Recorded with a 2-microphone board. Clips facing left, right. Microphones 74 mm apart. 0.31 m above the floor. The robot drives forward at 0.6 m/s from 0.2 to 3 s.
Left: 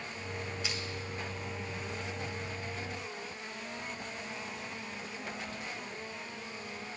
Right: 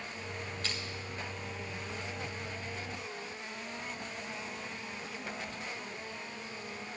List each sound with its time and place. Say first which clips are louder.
0.6 s crushing: right 1 dB; 10° left (ahead or behind), 1.5 m